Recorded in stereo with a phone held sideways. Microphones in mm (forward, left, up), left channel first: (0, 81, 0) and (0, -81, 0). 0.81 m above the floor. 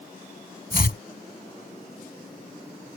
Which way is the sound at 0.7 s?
70° left (ahead or behind).